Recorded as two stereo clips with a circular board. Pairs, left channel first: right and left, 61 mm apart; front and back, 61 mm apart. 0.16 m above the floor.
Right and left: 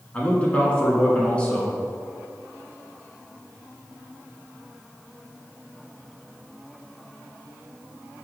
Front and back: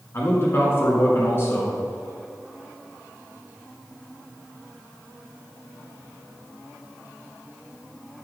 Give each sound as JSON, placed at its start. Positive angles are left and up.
{"t": 0.1, "sound": "a man speaking", "azimuth_deg": -30, "distance_m": 1.9}